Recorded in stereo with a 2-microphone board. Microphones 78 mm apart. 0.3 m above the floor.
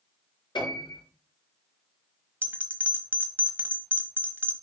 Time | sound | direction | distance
0.6 | a piano | 75° left (ahead or behind) | 5.5 m
2.4 | a bell | 30° right (ahead or behind) | 1.2 m